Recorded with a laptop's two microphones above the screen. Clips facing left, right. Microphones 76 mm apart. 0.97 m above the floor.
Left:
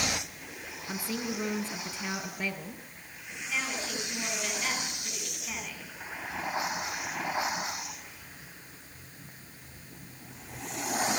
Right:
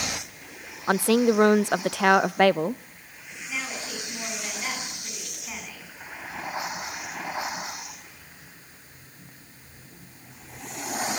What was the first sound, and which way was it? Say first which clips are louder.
A woman speaking: right 15 dB; 65° right (ahead or behind).